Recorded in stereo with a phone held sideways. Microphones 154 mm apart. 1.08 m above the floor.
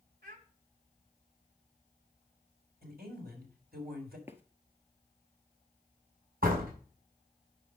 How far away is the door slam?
About 5.5 m.